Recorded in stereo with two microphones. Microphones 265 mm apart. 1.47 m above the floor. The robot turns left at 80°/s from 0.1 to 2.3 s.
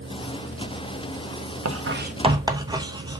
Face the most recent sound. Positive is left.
turn(degrees=-15)  # may be behind; listen again after turning